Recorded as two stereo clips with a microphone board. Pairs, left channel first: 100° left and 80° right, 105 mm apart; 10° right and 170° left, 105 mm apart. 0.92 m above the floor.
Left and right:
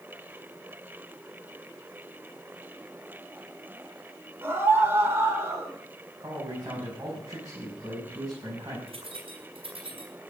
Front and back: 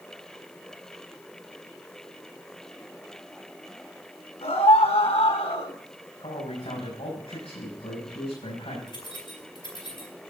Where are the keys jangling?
50° right, 4.5 m.